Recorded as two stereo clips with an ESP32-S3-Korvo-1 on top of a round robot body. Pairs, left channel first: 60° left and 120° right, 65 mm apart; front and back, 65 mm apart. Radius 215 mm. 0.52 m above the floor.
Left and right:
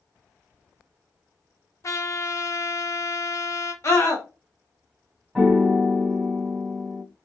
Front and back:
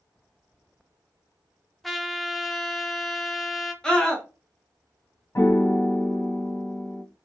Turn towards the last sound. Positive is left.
turn(degrees=-40)